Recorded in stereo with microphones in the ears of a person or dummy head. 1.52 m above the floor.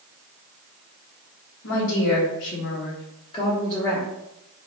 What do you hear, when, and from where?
1.6 s a woman speaking: 70° left (ahead or behind), 1.0 m; by 4.1 s 10° right (ahead or behind), 0.7 m